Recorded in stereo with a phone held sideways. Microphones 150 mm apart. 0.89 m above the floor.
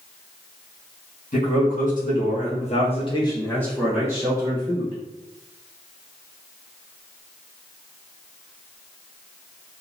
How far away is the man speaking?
About 1.4 m.